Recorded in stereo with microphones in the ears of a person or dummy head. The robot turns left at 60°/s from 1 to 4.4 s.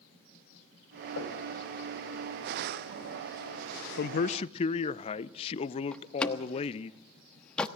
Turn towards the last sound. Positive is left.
turn(degrees=10)  # may be behind; listen again after turning